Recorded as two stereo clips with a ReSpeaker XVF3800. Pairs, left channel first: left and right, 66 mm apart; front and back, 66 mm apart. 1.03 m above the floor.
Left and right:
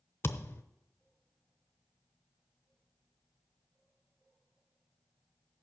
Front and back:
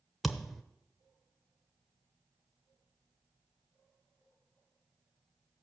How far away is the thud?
About 0.8 m.